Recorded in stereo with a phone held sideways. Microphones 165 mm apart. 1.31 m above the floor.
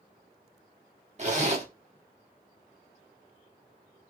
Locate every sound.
1.2 s a zipper: 45° right (ahead or behind), 1.1 m